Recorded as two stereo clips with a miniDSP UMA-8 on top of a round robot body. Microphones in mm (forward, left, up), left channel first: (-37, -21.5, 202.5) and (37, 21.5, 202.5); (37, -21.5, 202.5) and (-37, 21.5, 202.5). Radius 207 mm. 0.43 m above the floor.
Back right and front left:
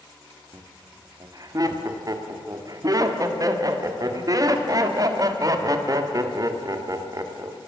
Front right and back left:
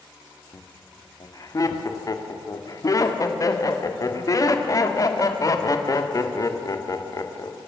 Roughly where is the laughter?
Ahead.